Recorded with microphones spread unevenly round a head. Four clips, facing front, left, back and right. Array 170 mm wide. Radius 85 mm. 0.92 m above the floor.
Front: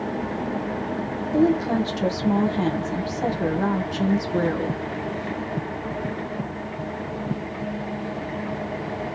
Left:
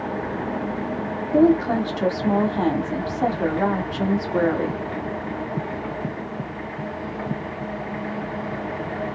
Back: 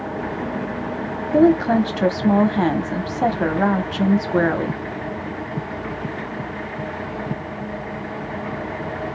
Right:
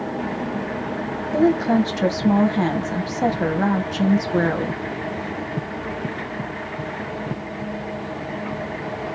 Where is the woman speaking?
170° right, 0.9 m.